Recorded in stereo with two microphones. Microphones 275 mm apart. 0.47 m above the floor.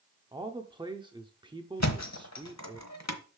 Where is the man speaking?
15° right (ahead or behind), 0.7 m.